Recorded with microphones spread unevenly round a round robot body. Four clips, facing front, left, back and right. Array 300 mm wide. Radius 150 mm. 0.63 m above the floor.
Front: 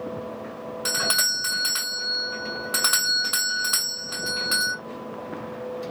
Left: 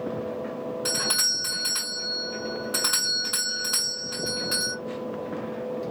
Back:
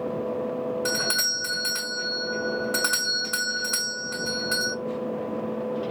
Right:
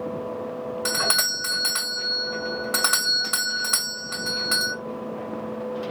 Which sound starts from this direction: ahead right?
A doorbell, at 0.8 s.